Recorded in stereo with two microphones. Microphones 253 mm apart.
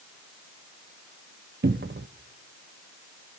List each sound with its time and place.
1.6 s a cupboard door: 45° right (ahead or behind), 0.6 m